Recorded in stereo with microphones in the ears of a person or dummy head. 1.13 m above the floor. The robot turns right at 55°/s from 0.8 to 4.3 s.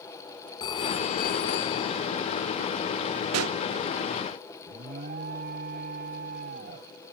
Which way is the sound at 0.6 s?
30° left.